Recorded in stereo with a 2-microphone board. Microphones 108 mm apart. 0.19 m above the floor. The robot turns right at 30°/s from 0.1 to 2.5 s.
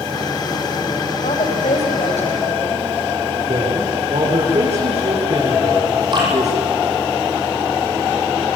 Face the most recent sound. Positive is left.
turn(degrees=-45)  # may be behind; listen again after turning